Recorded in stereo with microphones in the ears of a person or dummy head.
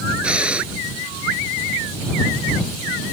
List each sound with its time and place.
0.2 s breathing: 10° right (ahead or behind)